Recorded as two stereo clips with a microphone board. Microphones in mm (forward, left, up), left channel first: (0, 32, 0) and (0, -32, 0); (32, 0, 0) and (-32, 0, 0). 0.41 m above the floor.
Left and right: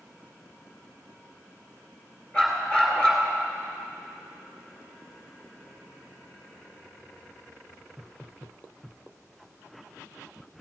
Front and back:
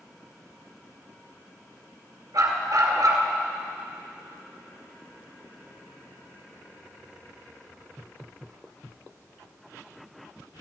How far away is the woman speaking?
I don't hear a woman speaking.